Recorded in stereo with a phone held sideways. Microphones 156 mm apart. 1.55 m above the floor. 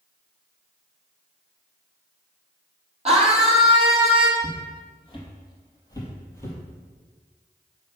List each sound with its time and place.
3.0 s a scream: 40° right (ahead or behind), 3.5 m
4.4 s footsteps: 40° left (ahead or behind), 3.5 m; by 6.6 s 15° left (ahead or behind), 3 m